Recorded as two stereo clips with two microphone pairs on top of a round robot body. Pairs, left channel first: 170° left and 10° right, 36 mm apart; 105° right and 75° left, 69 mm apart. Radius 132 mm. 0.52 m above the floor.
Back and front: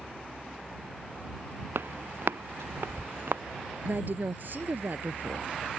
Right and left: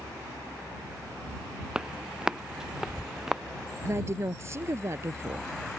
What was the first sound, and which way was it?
Footsteps, 5° right.